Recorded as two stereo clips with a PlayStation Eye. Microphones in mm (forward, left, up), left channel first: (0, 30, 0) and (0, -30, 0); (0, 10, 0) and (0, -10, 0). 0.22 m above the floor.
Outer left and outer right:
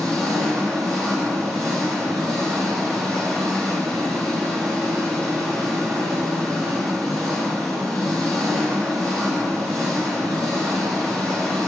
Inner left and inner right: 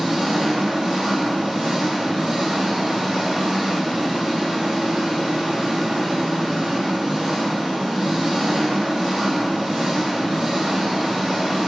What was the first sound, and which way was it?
An engine running, 5° left (ahead or behind).